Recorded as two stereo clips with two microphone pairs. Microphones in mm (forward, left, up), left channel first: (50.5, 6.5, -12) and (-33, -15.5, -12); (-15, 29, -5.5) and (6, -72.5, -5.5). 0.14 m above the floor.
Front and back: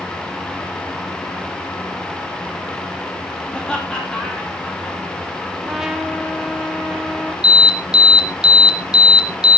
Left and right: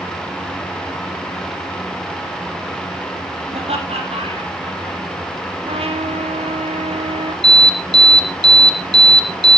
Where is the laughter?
65° right, 4.5 m.